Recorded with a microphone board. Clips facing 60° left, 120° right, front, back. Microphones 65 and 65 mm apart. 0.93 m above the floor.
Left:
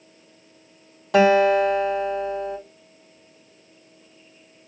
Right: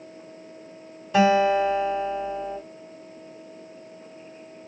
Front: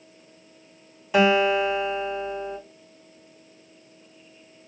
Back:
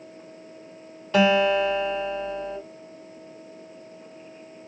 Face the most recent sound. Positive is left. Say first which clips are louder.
# left 3 dB, even
turn(degrees=75)